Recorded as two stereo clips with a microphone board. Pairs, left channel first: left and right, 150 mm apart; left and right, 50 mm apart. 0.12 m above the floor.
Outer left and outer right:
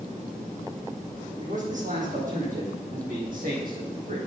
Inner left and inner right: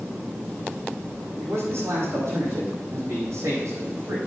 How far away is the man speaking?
About 6 m.